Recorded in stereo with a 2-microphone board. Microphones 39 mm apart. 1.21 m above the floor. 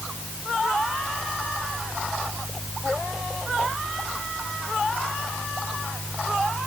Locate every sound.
Only background noise.